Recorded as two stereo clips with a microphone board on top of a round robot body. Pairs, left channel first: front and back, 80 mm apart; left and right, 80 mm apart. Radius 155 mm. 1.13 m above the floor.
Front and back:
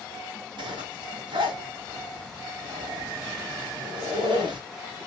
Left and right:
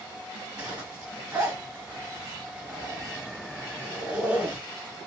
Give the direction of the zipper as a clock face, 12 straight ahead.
6 o'clock.